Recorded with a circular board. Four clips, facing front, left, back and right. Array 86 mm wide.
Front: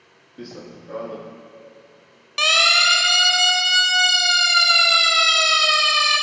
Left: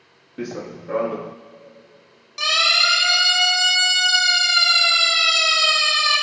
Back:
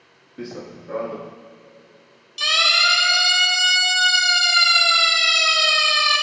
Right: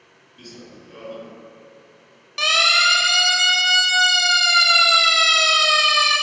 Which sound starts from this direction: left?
Running footsteps, at 0.4 s.